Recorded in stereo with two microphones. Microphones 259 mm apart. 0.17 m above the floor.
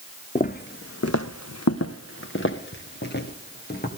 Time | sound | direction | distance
0.3 | footsteps | 30° left (ahead or behind) | 0.9 m